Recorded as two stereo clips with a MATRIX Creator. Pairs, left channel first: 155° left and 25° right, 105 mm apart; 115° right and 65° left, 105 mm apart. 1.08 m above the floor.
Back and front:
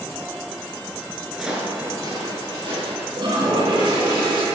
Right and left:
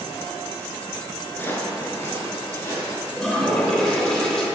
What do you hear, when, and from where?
1.3 s footsteps: 120° right, 1.0 m; by 3.1 s 50° right, 2.5 m
3.2 s a toilet flushing: 30° right, 1.1 m